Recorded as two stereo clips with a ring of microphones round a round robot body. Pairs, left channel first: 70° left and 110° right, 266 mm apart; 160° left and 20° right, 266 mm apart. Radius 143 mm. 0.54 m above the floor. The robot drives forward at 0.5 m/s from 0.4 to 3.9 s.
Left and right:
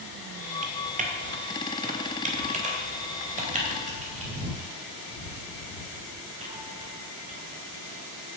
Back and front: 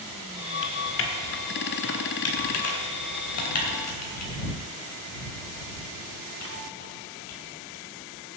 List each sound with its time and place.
0.6 s typing on a keyboard: 170° right, 1.5 m; by 8.4 s 175° right, 3 m